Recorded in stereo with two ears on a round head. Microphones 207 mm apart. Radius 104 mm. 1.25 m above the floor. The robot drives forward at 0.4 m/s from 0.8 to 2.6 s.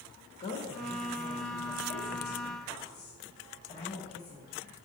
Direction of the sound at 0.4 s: 30° left (ahead or behind).